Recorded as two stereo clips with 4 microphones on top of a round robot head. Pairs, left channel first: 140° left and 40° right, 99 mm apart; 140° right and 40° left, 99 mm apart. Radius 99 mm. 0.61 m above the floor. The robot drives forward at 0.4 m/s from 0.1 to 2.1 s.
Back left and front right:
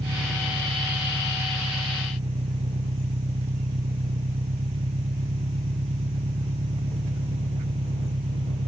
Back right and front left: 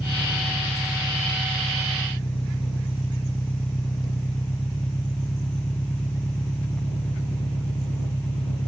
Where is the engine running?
60° right.